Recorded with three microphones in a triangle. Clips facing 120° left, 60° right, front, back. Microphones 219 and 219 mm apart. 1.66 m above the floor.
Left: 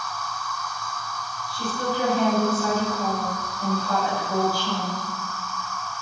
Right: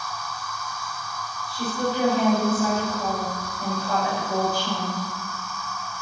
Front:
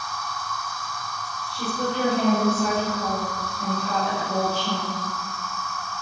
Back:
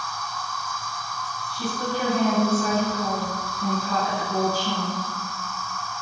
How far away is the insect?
About 3 m.